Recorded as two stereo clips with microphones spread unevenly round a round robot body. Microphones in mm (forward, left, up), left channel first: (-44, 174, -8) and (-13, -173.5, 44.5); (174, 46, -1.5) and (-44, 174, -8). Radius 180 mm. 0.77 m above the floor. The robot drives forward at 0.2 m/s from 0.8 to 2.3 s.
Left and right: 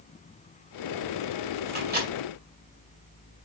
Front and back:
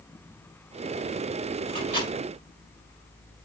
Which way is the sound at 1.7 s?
150° right.